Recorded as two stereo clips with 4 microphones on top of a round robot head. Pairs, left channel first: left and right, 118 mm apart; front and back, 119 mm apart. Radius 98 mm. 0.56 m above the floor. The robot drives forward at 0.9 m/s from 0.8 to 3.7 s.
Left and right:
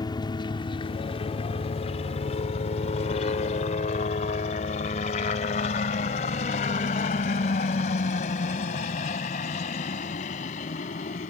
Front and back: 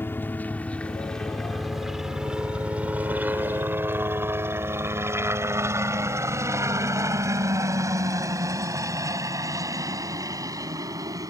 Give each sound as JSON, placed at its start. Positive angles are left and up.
{"t": 0.0, "sound": "a helicopter", "azimuth_deg": 65}